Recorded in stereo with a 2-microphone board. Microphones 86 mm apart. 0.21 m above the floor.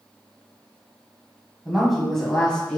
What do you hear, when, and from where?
1.6 s a woman speaking: 5° right (ahead or behind), 1.3 m; by 2.8 s 15° left (ahead or behind), 1.7 m